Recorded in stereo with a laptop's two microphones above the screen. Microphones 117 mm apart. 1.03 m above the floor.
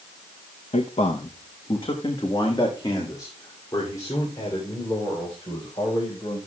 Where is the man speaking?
70° left (ahead or behind), 0.7 m; by 6.4 s 25° left (ahead or behind), 5 m.